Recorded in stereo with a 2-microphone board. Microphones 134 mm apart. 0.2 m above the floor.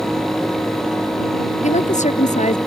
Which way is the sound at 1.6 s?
70° left (ahead or behind).